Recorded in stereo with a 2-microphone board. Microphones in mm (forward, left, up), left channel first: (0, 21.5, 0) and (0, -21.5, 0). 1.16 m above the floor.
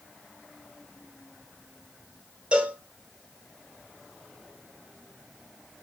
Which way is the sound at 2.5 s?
25° right (ahead or behind).